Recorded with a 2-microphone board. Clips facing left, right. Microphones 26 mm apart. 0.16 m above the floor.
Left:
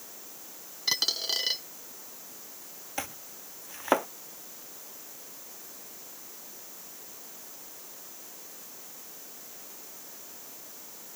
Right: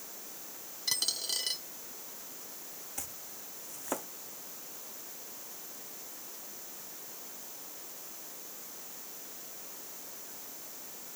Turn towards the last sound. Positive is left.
turn(degrees=40)  # may be behind; listen again after turning